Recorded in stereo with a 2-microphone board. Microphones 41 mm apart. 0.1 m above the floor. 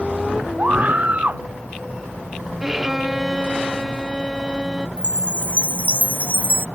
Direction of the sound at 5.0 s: 50° left (ahead or behind).